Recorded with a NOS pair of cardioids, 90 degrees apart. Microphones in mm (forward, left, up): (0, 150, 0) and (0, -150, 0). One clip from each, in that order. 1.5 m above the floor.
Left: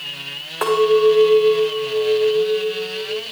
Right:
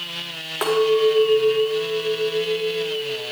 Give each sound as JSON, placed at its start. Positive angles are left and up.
{"t": 0.6, "sound": "a clink", "azimuth_deg": -15, "distance_m": 3.5}